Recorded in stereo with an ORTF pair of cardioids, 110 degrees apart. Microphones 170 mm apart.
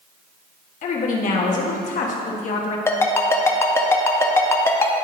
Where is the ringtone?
15° left, 0.8 m.